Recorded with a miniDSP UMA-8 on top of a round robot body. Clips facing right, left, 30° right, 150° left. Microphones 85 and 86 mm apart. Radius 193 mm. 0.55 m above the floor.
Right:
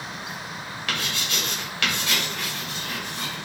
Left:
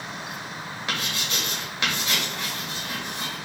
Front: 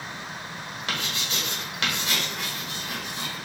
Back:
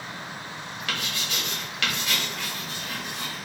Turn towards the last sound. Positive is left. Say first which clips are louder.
# right 1 dB, front 1 dB
turn(degrees=30)